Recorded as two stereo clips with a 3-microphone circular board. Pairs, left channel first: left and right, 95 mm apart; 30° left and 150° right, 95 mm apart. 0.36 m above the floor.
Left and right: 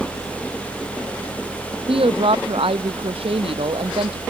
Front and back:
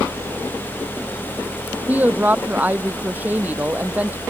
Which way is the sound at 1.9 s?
80° right.